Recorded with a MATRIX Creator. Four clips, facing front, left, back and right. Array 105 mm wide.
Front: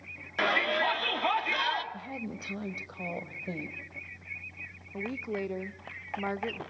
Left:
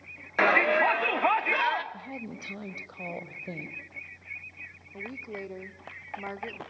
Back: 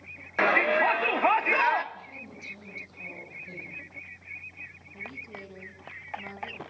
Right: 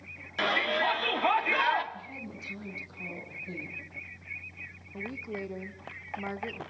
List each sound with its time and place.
0.4 s a shout: 120° left, 1.4 m; by 1.8 s 175° right, 1.3 m
1.9 s a woman speaking: 45° left, 2.5 m
4.9 s a woman speaking: straight ahead, 1.2 m